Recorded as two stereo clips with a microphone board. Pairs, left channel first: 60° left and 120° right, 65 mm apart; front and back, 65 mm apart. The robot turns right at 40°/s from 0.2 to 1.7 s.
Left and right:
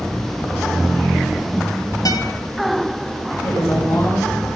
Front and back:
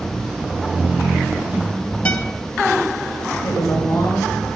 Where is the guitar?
70° left, 2.5 m.